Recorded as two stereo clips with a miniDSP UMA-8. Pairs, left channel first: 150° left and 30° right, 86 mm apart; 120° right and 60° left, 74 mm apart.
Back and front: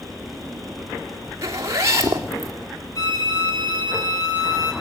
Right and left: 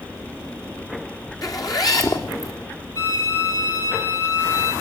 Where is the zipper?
85° right, 3 m.